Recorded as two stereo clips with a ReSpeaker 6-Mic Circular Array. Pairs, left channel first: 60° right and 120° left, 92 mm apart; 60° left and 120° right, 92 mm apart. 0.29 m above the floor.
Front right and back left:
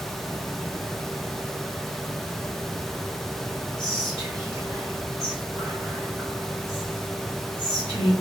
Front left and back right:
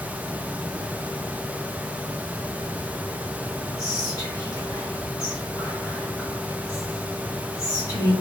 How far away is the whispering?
About 1.5 m.